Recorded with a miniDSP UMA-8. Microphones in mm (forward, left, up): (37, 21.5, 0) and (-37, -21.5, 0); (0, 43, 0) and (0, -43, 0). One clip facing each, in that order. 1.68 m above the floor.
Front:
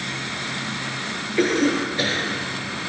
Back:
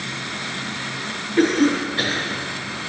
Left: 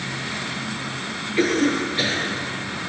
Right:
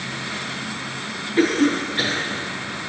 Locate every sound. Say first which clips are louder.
1.4 s a cough: back 3 dB, right 2 dB; 135° right, 4.5 m